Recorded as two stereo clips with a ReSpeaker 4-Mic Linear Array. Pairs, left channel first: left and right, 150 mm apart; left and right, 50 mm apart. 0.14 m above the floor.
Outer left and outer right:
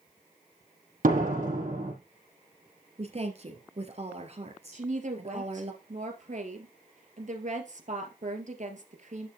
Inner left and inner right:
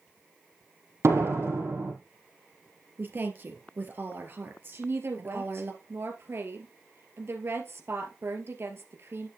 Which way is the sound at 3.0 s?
50° right (ahead or behind).